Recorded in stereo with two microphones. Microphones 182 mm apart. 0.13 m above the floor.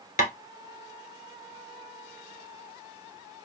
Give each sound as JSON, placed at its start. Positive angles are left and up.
{"t": 0.2, "sound": "tapping", "side_deg": 45, "distance_m": 0.9}